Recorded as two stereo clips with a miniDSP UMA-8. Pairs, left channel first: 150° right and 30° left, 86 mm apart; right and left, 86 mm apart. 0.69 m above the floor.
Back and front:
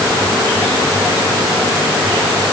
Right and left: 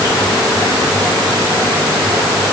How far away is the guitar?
I don't hear a guitar.